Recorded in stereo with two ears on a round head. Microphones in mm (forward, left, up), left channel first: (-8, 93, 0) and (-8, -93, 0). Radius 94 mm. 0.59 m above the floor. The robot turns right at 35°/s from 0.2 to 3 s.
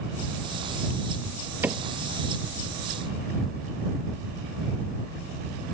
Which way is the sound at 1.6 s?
10° right (ahead or behind).